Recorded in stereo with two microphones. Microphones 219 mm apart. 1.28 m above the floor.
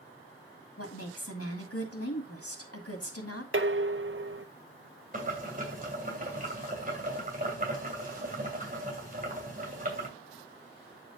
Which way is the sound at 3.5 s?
60° right (ahead or behind).